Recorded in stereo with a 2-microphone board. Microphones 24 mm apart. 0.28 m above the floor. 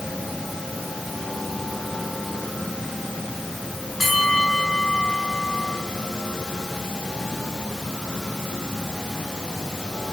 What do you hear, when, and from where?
4.0 s a bell: 5° left (ahead or behind), 4 m